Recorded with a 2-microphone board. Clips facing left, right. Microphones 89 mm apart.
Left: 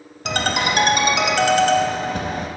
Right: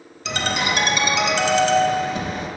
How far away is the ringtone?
About 0.8 m.